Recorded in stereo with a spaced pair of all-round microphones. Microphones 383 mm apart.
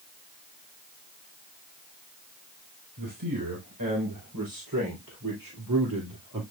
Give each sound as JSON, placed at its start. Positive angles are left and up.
{"t": 3.0, "sound": "a man speaking", "side_deg": -60, "distance_m": 4.5}